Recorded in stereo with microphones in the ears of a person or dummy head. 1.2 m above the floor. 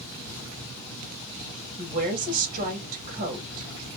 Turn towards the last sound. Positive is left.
turn(degrees=-45)  # may be behind; listen again after turning